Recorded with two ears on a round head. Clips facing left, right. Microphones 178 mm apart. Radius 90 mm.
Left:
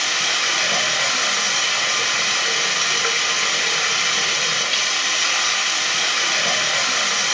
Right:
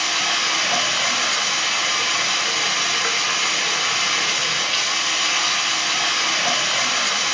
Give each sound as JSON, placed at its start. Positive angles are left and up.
{"t": 0.0, "sound": "running water", "side_deg": 20, "distance_m": 2.5}